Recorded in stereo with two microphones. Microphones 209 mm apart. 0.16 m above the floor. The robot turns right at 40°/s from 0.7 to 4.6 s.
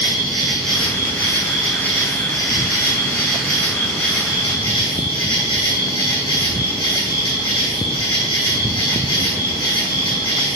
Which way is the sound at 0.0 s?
Straight ahead.